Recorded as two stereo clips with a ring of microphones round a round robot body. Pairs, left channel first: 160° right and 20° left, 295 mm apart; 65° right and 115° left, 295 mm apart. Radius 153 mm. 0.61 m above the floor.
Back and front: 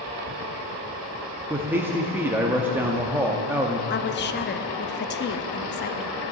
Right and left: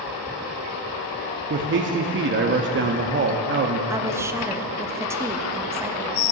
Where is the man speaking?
100° left, 0.6 m.